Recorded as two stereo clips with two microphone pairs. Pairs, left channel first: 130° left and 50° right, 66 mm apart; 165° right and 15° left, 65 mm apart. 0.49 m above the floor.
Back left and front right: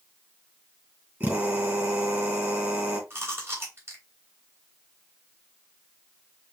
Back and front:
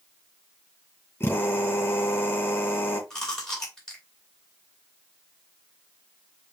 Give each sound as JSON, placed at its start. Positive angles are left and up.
{"t": 1.2, "sound": "a drill", "azimuth_deg": -105, "distance_m": 3.0}
{"t": 3.1, "sound": "chewing", "azimuth_deg": -85, "distance_m": 2.0}